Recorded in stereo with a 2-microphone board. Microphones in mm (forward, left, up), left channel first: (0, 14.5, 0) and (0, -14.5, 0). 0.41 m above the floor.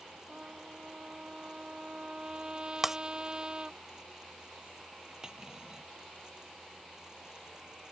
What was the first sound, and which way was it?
A trumpet, 30° right (ahead or behind).